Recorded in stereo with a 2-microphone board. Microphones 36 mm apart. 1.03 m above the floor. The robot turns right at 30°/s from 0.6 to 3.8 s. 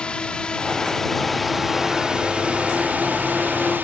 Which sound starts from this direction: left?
A drone, at 0.0 s.